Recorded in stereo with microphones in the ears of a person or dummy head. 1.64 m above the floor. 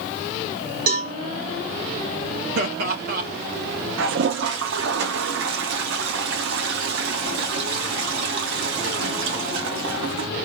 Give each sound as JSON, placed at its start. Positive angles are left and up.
{"t": 0.9, "sound": "a cowbell", "side_deg": -50, "distance_m": 2.0}
{"t": 2.5, "sound": "laughter", "side_deg": -55, "distance_m": 2.0}
{"t": 4.0, "sound": "a toilet flushing", "side_deg": -75, "distance_m": 0.8}